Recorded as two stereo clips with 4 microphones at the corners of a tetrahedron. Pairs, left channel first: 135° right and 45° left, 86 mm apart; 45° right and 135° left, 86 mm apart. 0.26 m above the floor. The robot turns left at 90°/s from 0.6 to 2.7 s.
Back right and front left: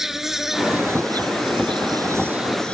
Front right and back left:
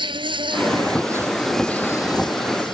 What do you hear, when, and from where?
0.0 s an insect: 130° left; by 2.7 s 60° right